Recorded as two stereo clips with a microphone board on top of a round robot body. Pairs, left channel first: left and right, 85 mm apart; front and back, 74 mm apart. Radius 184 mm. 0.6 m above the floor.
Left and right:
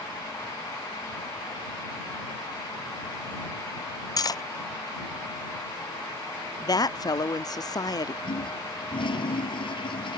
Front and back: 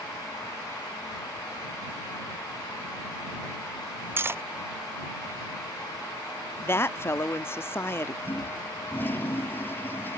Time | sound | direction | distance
4.2 | cutlery clinking | 125° left | ?
6.6 | a woman speaking | 55° left | ?
8.2 | a toilet flushing | 65° left | ?